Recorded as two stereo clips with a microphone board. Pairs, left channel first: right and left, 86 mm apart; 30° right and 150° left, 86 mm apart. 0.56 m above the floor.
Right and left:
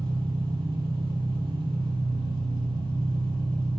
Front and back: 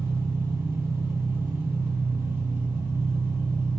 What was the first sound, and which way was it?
An engine running, 90° left.